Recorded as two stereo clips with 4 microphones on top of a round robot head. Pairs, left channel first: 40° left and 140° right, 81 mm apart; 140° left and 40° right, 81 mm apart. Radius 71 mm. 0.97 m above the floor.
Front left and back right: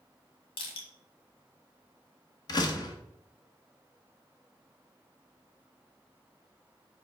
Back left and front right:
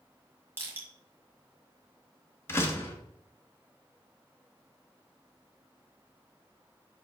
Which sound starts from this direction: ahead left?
Crushing, at 0.6 s.